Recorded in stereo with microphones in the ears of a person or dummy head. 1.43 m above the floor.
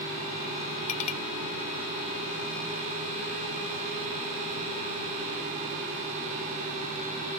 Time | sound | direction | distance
0.9 | a clink | 40° left (ahead or behind) | ?